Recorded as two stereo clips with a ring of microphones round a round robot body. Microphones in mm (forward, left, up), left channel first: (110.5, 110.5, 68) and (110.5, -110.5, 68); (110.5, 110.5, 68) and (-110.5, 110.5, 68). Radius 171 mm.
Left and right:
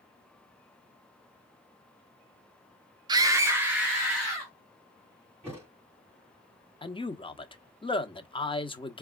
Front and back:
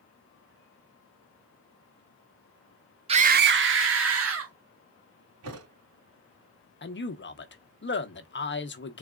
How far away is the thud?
About 2.5 m.